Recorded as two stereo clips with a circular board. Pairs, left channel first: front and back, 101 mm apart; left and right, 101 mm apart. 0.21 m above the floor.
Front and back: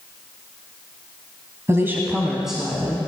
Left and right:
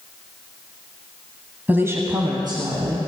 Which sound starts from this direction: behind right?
A woman speaking, at 1.7 s.